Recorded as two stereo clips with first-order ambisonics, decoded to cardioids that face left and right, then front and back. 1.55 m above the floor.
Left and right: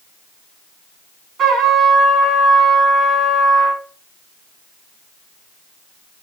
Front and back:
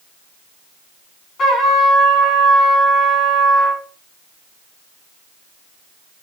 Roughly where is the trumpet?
Ahead right.